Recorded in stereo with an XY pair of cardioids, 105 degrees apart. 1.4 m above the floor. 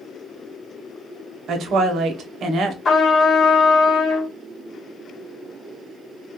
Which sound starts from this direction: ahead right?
A woman speaking, at 1.5 s.